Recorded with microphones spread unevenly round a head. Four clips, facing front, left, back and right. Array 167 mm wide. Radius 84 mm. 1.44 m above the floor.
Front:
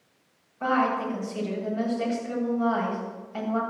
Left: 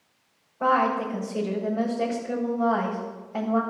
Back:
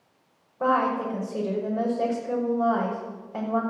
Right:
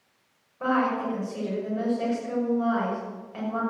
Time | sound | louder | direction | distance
0.6 | a woman speaking | left 3 dB, back 1 dB | 160° left | 6.5 m